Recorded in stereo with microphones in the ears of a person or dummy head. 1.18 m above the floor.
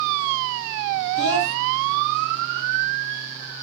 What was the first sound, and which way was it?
A child speaking, 60° left (ahead or behind).